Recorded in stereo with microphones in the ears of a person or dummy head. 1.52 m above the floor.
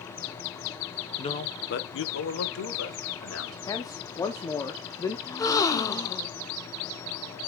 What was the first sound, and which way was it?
A man speaking, 30° left (ahead or behind).